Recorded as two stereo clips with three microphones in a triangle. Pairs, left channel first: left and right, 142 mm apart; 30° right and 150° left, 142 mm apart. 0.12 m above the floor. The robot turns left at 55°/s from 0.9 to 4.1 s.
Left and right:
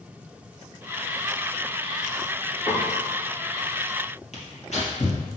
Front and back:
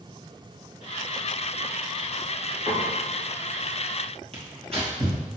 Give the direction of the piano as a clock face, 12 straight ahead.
5 o'clock.